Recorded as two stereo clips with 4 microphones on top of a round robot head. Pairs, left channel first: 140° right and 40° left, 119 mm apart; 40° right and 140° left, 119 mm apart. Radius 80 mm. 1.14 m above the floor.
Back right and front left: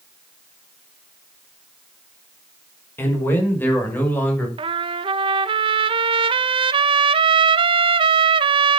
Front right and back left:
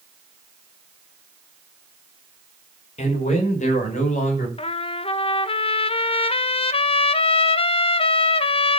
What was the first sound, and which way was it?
A man speaking, 65° right.